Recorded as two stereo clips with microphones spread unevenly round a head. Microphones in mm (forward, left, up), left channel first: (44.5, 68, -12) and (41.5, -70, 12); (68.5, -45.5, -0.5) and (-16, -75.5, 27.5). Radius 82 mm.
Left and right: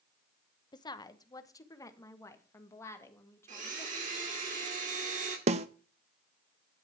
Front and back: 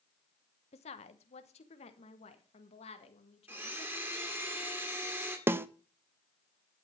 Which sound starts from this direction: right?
A blender, at 3.5 s.